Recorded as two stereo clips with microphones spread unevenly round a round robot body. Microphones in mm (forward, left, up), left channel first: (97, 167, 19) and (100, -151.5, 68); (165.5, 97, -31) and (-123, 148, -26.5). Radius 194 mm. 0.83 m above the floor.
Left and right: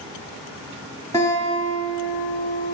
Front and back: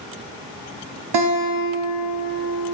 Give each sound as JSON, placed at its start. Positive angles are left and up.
{"t": 1.1, "sound": "a guitar", "azimuth_deg": 175, "distance_m": 0.6}